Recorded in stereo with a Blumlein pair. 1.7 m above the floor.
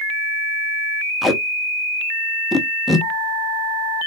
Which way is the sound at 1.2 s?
Straight ahead.